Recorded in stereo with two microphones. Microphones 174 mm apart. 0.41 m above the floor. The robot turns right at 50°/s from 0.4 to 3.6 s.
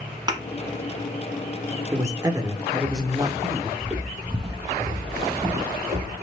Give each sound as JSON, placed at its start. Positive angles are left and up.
{"t": 0.3, "sound": "a thud", "side_deg": -25, "distance_m": 1.3}
{"t": 1.9, "sound": "a man speaking", "side_deg": -15, "distance_m": 0.7}
{"t": 3.8, "sound": "footsteps", "side_deg": 0, "distance_m": 0.6}